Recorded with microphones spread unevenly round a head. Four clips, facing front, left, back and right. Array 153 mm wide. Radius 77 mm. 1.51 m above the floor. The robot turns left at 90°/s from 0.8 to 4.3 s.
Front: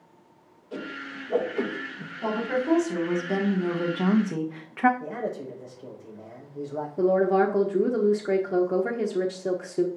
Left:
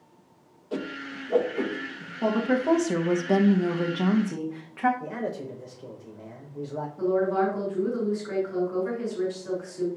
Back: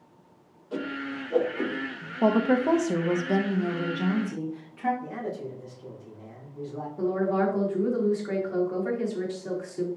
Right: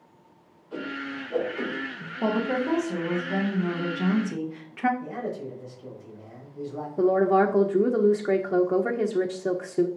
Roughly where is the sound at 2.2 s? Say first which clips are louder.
Left 1 dB, back 5 dB; behind.